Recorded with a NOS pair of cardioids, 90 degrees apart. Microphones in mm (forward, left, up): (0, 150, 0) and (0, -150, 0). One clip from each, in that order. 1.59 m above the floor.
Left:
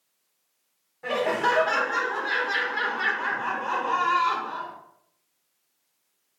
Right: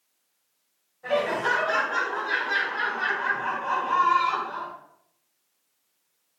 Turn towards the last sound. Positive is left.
turn(degrees=50)